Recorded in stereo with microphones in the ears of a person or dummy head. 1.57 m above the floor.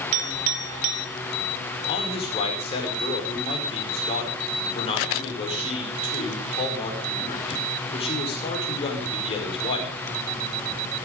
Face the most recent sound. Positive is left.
turn(degrees=35)  # may be behind; listen again after turning